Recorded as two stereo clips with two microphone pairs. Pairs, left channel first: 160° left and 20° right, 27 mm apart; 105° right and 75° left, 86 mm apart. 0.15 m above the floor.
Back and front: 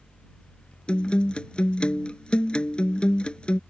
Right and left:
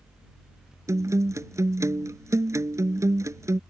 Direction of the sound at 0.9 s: 120° left.